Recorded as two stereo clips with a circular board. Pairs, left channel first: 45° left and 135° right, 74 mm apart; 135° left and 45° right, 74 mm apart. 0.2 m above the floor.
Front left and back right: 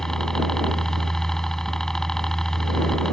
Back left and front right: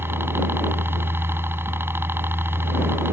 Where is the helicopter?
35° right.